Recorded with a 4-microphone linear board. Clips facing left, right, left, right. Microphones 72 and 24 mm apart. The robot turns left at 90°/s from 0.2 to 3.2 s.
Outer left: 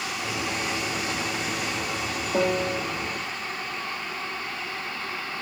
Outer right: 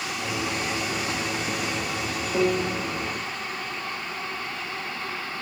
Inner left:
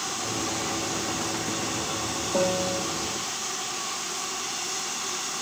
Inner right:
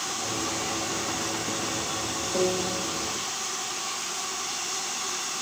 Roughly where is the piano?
Ahead.